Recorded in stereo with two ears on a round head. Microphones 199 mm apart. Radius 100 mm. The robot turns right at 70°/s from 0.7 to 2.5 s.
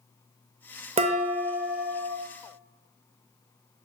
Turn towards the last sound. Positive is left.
turn(degrees=55)